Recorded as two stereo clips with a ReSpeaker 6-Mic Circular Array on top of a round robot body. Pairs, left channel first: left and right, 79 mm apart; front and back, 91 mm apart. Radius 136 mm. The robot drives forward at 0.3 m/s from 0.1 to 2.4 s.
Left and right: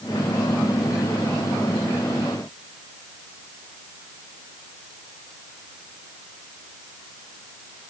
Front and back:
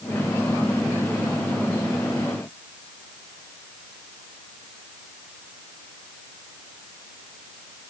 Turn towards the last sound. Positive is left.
No sound to turn to.